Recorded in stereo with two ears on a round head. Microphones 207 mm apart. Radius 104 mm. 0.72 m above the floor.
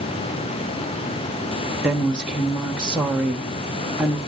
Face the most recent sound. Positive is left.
turn(degrees=-5)  # may be behind; listen again after turning